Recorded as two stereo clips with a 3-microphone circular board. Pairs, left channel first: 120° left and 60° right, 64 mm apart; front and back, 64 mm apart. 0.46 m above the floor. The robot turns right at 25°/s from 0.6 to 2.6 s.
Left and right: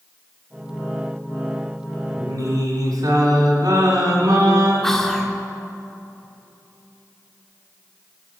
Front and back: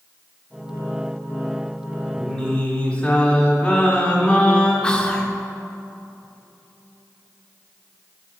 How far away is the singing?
About 2 m.